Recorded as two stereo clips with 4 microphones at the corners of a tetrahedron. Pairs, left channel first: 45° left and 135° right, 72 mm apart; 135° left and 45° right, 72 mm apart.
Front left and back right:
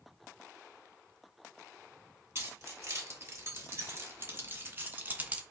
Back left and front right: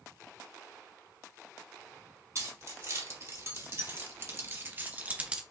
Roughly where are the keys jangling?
Right.